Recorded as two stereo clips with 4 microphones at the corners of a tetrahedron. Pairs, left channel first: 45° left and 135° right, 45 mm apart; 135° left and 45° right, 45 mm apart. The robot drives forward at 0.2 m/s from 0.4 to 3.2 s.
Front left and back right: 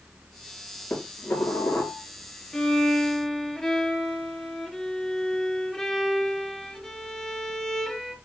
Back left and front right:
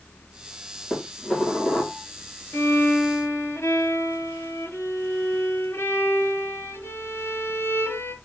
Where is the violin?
120° left, 2 m; by 8.2 s 125° left, 2.5 m.